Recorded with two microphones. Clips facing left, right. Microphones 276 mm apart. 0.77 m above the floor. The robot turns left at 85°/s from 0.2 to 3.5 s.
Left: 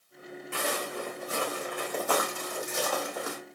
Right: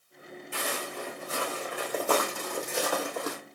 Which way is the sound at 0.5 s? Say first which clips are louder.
Left 3 dB; 70° left (ahead or behind).